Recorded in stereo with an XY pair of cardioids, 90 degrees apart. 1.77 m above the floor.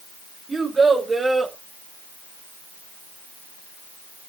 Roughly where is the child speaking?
Ahead right.